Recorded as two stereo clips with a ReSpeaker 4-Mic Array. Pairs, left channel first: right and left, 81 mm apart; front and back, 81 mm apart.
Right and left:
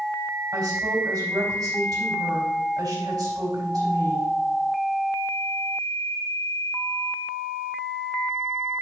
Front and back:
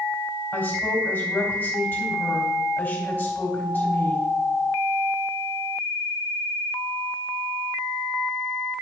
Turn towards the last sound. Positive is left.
turn(degrees=65)